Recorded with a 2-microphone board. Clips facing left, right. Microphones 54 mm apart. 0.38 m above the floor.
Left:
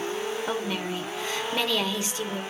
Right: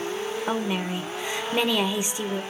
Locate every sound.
0.5 s a woman speaking: 15° right (ahead or behind), 0.8 m